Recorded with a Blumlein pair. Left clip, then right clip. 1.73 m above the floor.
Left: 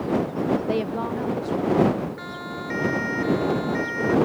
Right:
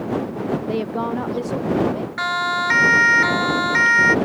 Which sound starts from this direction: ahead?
A woman speaking, at 0.7 s.